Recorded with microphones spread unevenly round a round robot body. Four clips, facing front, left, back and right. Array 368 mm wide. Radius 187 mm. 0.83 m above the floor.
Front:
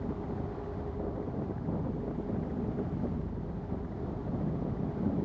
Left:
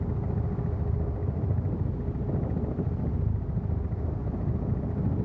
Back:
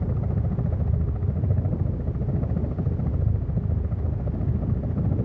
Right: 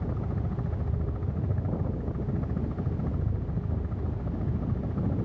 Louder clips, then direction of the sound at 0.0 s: Left 1 dB, back 6 dB; 175° left.